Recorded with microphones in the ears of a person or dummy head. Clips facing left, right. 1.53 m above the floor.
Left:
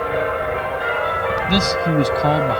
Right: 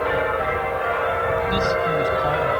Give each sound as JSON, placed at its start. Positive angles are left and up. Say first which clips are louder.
{"t": 1.5, "sound": "a man speaking", "louder": "left 2 dB", "side_deg": 80}